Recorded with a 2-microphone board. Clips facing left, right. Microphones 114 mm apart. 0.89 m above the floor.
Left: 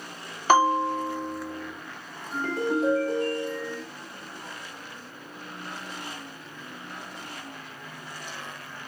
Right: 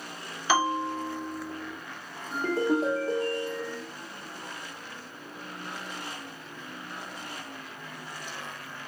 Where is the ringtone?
30° right (ahead or behind), 1.1 m.